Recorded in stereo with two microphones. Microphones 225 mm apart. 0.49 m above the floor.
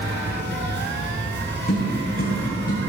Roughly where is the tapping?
Left.